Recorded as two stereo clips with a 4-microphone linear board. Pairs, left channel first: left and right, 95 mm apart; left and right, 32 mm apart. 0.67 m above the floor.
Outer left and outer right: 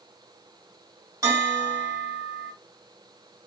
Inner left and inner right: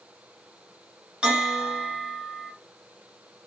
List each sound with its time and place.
1.2 s a bell: 35° right (ahead or behind), 2.5 m